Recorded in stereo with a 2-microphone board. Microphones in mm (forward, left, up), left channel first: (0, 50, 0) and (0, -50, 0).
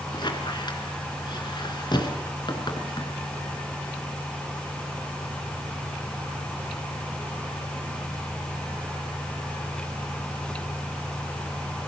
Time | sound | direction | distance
0.1 | a squeak | 45° left (ahead or behind) | 3 m